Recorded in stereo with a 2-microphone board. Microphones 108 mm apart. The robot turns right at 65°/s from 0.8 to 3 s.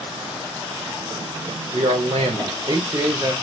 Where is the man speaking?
105° right, 1.8 m; by 3.3 s 25° right, 1.8 m.